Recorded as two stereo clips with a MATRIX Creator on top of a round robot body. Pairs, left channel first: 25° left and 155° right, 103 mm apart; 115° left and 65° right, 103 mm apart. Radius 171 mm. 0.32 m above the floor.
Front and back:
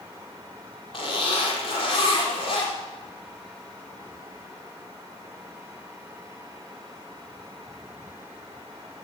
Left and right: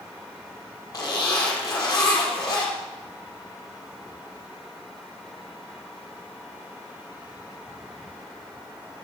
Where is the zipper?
55° left, 5.5 m.